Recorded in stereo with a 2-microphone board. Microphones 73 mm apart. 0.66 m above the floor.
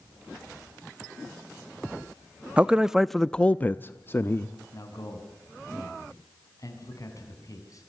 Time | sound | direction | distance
2.6 | a man speaking | 15° right (ahead or behind) | 0.6 m
4.7 | a man speaking | 50° left (ahead or behind) | 5.5 m